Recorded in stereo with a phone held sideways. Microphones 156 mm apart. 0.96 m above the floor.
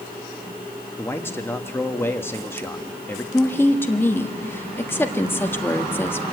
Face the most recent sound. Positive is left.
turn(degrees=15)  # may be behind; listen again after turning